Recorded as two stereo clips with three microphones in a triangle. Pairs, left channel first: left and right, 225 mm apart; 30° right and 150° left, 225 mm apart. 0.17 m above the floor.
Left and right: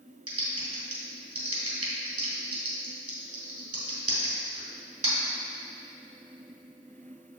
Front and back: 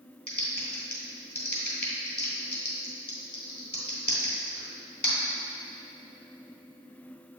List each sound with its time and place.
0.3 s typing on a keyboard: 80° right, 1.7 m